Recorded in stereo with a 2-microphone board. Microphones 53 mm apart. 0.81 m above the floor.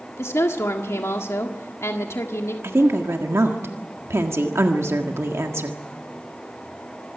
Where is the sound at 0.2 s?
70° left (ahead or behind), 1.6 m.